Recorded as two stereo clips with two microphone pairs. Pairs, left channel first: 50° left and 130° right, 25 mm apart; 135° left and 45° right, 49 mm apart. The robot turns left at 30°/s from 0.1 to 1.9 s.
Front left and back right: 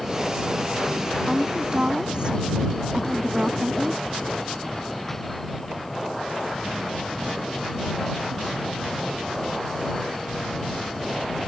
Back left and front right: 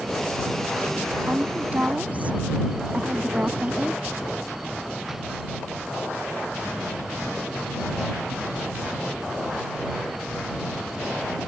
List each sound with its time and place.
1.3 s a woman speaking: 75° right; by 4.0 s 95° right